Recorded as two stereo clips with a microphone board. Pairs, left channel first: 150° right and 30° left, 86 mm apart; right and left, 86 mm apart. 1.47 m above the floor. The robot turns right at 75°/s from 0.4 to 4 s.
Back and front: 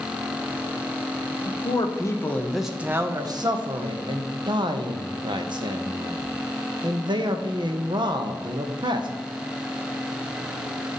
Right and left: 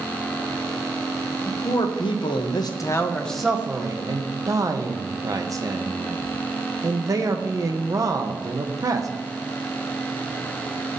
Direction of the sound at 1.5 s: 145° right.